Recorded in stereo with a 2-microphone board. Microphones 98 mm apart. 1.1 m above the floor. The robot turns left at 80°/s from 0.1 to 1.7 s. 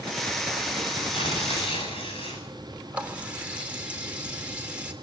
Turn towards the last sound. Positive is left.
turn(degrees=-15)  # may be behind; listen again after turning